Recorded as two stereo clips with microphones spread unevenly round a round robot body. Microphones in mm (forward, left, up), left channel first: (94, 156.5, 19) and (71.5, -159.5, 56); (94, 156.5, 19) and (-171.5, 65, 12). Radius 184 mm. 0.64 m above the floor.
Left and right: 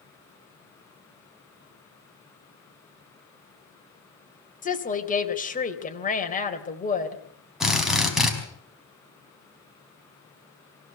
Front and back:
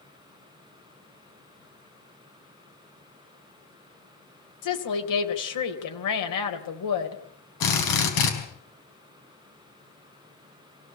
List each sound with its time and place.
4.6 s a woman speaking: 20° left, 3 m
7.6 s a drill: 5° right, 4.5 m